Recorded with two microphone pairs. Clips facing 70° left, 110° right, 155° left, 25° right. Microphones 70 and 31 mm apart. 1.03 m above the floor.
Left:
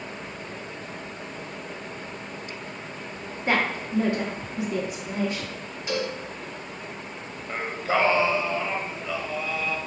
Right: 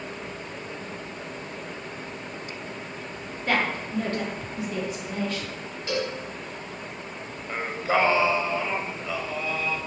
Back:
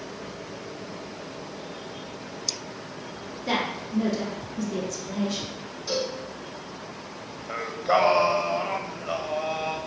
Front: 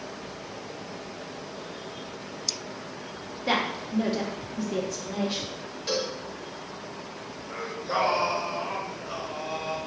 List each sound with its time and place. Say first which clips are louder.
3.5 s a woman speaking: left 1 dB, front 1 dB; 15° left, 0.8 m
5.9 s a cowbell: even, back 1 dB; 10° right, 1.3 m
7.5 s singing: right 1 dB, back 7 dB; 165° left, 0.7 m